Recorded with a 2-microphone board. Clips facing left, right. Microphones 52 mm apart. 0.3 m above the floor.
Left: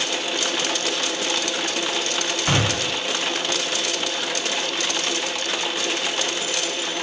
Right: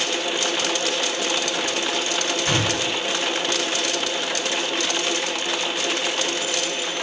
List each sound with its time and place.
2.5 s a gunshot: 25° left (ahead or behind), 1.8 m